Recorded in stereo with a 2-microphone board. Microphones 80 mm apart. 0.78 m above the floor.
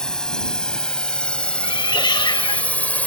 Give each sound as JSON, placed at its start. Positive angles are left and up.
{"t": 0.0, "sound": "a drone", "side_deg": 10}
{"t": 1.6, "sound": "a cat meowing", "side_deg": 75}